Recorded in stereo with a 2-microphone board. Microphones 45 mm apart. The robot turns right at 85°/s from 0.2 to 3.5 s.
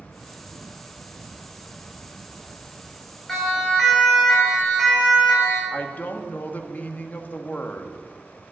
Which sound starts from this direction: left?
A woman speaking, at 5.7 s.